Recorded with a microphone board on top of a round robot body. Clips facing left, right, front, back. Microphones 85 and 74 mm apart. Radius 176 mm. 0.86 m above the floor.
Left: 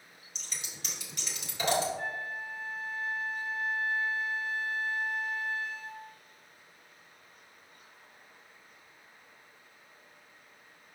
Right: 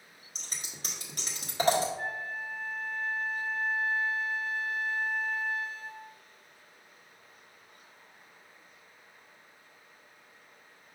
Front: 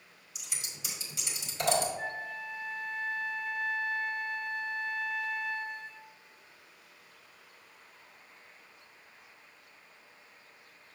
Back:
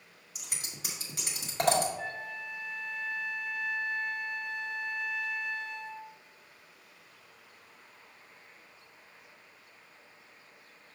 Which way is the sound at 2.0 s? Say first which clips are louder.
Right 1 dB, front 1 dB; 45° right.